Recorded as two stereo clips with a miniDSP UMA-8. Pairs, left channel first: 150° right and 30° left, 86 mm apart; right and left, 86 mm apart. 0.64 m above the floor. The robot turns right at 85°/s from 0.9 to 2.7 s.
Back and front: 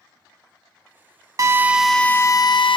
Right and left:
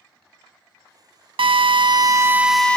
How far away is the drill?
About 0.5 m.